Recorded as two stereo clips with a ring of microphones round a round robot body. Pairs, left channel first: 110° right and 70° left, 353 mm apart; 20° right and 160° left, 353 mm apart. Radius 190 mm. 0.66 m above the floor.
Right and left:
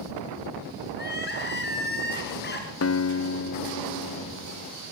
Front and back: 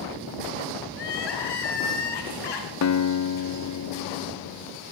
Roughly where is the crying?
Ahead right.